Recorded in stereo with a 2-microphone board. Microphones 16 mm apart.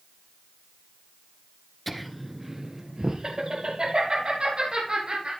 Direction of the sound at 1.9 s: 10° left (ahead or behind).